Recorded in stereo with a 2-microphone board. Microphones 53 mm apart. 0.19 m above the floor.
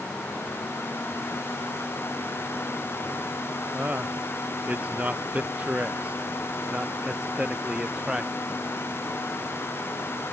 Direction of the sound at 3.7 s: 30° right (ahead or behind).